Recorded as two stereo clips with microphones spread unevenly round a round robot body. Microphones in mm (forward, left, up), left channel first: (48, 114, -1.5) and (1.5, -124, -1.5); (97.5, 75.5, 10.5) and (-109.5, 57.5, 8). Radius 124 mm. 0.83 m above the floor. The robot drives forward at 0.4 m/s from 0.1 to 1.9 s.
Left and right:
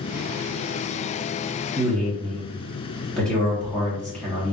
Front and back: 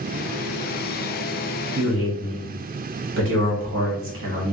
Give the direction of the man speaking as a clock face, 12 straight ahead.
7 o'clock.